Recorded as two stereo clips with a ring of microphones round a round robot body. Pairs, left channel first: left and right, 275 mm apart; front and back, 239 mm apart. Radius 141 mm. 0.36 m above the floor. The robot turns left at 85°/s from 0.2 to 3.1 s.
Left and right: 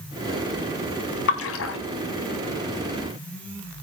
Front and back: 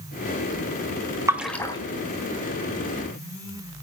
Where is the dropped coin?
No dropped coin in this recording.